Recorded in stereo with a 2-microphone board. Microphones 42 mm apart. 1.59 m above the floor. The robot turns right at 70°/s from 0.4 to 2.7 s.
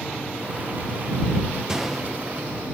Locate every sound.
1.7 s a gunshot: 15° right; by 2.5 s 35° left